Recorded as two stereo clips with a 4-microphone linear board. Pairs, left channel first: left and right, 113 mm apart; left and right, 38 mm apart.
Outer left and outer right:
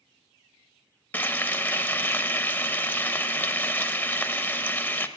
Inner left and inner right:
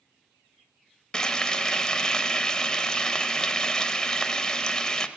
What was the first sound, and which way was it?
Frying, 20° left (ahead or behind).